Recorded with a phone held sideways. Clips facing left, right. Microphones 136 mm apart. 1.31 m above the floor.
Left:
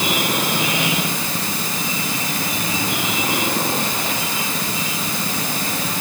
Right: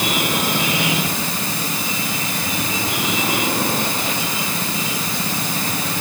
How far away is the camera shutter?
No camera shutter in this recording.